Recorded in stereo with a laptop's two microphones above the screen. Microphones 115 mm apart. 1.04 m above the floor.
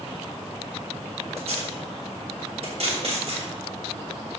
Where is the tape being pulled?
65° right (ahead or behind), 3.5 m.